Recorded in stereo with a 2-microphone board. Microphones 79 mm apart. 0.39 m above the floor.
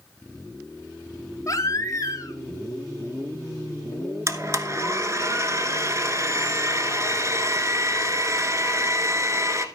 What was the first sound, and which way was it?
A baby crying, 40° left (ahead or behind).